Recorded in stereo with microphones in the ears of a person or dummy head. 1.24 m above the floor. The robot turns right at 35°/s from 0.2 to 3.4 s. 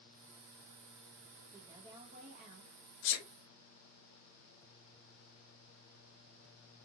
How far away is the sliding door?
I don't hear a sliding door.